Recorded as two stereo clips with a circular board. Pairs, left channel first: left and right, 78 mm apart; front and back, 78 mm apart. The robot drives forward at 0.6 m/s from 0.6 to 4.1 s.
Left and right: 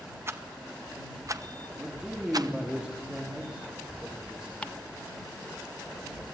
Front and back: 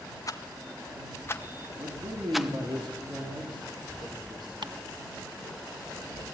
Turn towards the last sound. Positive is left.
turn(degrees=165)